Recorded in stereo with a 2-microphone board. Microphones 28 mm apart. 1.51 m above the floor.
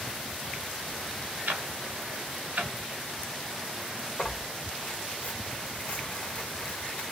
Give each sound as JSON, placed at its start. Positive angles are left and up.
{"t": 1.5, "sound": "ticking", "side_deg": -75, "distance_m": 0.6}
{"t": 4.2, "sound": "tearing paper", "side_deg": 50, "distance_m": 1.4}